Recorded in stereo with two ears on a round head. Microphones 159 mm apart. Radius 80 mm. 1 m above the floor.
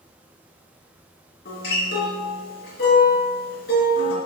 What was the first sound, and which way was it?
A guitar, 55° left (ahead or behind).